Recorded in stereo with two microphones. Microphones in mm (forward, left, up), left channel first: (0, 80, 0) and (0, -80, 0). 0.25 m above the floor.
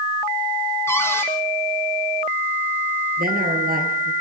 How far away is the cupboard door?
About 3.5 m.